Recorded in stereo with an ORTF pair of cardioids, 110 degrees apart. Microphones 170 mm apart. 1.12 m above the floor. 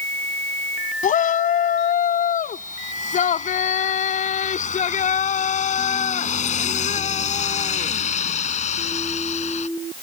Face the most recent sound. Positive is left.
turn(degrees=45)